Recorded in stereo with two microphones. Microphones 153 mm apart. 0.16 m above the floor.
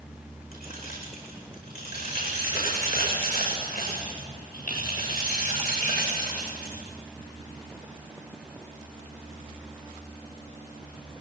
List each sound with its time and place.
0.5 s keys jangling: 85° left, 7 m